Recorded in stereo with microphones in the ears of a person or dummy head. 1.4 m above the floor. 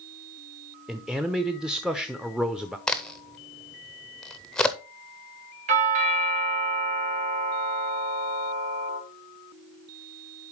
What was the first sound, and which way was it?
A man speaking, 5° right (ahead or behind).